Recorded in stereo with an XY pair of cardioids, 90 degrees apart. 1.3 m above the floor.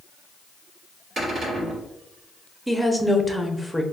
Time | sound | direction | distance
1.2 | a cupboard door | 60° right | 1.6 m
2.7 | a woman speaking | 5° right | 0.7 m